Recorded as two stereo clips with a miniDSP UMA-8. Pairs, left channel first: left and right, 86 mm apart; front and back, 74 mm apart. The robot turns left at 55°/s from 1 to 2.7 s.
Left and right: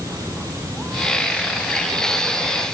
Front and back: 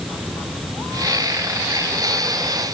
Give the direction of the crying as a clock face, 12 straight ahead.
I don't hear crying.